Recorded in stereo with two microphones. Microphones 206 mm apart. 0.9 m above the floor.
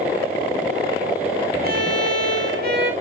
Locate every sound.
1.6 s a violin: 50° right (ahead or behind), 1.9 m